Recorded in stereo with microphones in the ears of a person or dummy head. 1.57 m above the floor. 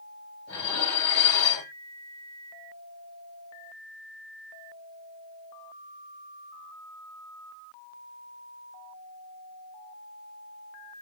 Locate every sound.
0.5 s dishes clattering: 55° left (ahead or behind), 6.5 m